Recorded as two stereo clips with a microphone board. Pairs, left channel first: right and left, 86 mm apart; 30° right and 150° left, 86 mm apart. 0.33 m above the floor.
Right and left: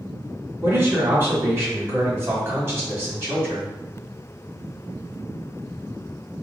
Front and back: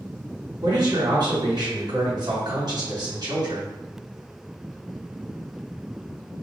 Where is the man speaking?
145° left, 1.9 m.